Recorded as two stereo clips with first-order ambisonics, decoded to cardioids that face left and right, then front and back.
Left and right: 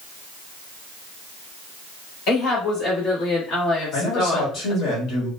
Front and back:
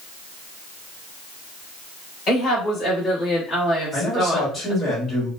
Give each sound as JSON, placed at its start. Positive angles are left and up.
{"t": 2.3, "sound": "a woman speaking", "azimuth_deg": 70, "distance_m": 1.7}
{"t": 3.9, "sound": "a man speaking", "azimuth_deg": 75, "distance_m": 1.6}